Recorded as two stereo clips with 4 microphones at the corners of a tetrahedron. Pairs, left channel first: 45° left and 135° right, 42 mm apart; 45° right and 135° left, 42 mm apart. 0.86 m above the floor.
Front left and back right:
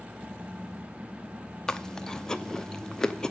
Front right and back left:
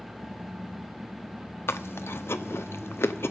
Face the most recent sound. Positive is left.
turn(degrees=-30)